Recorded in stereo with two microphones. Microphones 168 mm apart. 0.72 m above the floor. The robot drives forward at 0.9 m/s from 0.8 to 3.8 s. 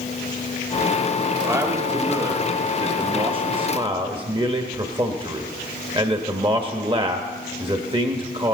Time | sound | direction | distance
1.4 | a man speaking | 15° right (ahead or behind) | 2 m